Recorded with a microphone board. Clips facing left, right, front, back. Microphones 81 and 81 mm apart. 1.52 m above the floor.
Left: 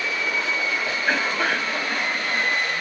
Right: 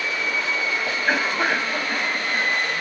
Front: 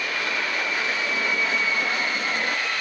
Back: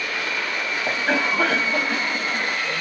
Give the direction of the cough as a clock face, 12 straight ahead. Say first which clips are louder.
Right 2 dB, back 4 dB; 6 o'clock.